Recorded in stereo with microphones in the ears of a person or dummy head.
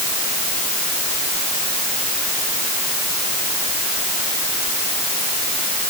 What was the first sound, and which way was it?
Only background noise.